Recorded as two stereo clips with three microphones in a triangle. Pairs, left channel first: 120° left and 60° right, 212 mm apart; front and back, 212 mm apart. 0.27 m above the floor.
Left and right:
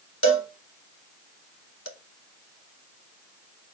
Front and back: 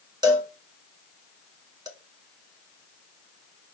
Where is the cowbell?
110° left, 0.6 m.